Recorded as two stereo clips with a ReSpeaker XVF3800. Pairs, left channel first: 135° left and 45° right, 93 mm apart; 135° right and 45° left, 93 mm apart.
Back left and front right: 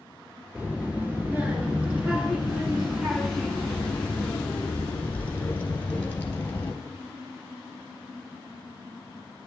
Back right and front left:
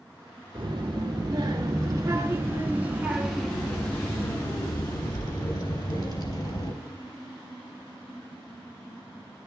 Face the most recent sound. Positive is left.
turn(degrees=-155)